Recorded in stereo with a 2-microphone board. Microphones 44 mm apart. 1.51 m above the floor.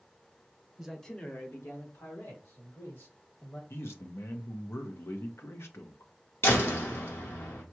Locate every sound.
0.8 s a man speaking: 10° right (ahead or behind), 1.1 m; by 3.6 s 75° left (ahead or behind), 4 m
3.7 s a man speaking: 70° left (ahead or behind), 0.8 m
6.4 s a door slam: 65° left (ahead or behind), 1.2 m